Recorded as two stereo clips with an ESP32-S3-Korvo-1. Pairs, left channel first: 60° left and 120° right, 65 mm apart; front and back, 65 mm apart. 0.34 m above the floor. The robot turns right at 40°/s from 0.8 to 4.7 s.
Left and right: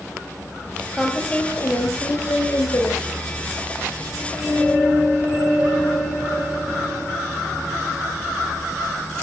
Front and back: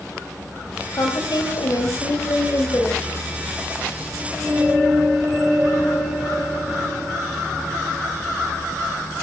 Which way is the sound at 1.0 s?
25° right.